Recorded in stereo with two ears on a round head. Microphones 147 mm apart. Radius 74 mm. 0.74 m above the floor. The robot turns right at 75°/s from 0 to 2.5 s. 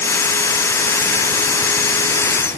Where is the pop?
I don't hear a pop.